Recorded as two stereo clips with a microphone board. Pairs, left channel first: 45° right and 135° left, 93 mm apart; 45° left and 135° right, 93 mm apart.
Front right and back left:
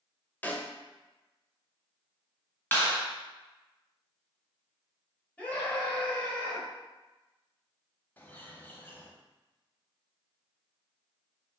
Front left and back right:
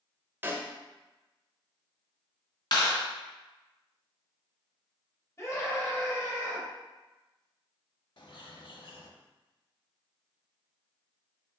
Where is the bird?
20° left, 0.6 m.